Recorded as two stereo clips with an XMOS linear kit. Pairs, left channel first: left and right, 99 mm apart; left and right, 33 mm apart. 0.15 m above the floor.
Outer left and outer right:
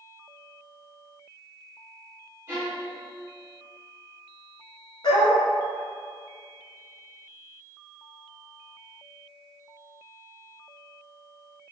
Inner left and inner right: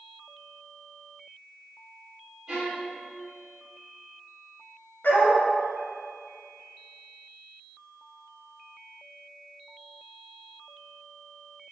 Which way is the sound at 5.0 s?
55° left (ahead or behind).